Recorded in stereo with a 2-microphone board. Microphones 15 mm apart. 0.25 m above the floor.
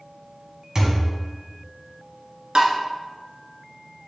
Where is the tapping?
65° right (ahead or behind), 0.9 m.